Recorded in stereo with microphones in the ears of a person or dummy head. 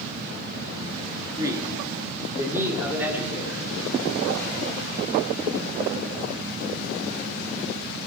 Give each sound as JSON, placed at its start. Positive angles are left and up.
{"t": 1.4, "sound": "a man speaking", "side_deg": -20, "distance_m": 2.5}